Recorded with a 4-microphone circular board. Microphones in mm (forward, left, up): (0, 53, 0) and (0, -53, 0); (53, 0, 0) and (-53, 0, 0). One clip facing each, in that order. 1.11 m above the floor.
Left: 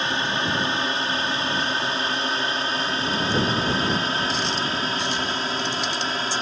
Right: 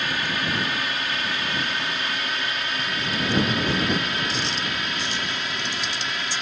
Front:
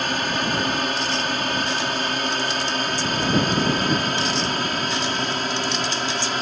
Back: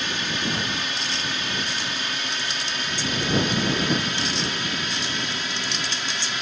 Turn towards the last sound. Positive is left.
turn(degrees=40)